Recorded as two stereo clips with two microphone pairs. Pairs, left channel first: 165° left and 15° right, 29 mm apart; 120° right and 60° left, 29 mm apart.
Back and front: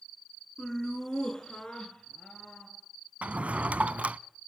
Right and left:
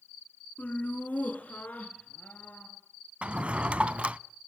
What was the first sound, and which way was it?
Laughter, 130° right.